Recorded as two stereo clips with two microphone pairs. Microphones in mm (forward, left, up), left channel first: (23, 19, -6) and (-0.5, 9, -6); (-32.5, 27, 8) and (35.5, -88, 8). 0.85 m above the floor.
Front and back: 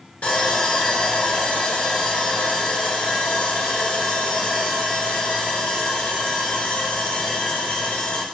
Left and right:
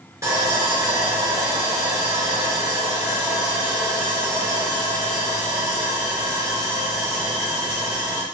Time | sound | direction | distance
0.2 | sawing | straight ahead | 1.2 m